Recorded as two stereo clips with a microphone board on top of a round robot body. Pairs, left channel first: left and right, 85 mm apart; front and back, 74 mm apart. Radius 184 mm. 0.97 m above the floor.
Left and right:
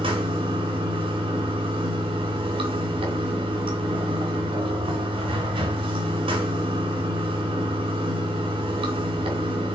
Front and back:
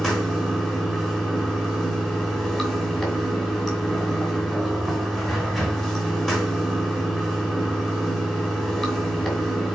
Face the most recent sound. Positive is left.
turn(degrees=-85)